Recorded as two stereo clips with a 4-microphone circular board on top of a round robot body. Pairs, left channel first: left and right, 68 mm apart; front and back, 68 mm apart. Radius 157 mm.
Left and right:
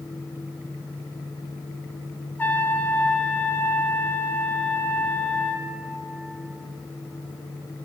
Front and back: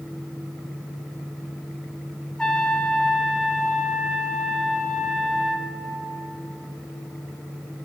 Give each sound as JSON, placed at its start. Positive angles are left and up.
{"t": 2.4, "sound": "a trumpet", "azimuth_deg": 70, "distance_m": 1.4}